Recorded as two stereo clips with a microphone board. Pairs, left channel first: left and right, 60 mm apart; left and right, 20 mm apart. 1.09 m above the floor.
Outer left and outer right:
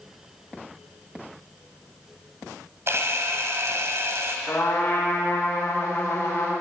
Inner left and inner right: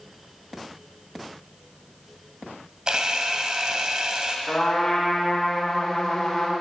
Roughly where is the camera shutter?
Right.